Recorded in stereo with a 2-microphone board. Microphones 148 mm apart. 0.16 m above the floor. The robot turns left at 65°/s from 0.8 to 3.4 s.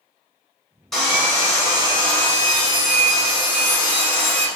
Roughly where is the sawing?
Ahead.